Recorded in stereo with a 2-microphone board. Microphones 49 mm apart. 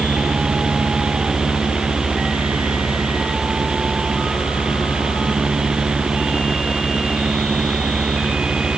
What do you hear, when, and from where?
Only background noise.